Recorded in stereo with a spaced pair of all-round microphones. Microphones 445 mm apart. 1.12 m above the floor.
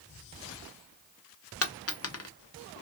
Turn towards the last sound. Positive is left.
turn(degrees=35)  # may be behind; listen again after turning